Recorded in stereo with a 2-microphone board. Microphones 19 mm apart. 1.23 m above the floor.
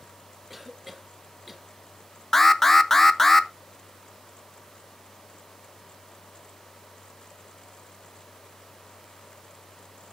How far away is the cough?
About 1.7 m.